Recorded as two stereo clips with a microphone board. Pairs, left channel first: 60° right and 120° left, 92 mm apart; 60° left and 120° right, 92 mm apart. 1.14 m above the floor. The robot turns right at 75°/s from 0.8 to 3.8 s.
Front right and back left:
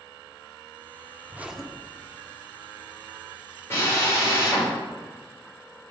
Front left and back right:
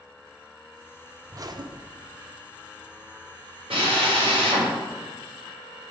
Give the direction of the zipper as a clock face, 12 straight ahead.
6 o'clock.